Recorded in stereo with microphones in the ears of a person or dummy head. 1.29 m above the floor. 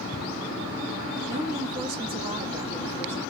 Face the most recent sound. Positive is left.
turn(degrees=15)  # may be behind; listen again after turning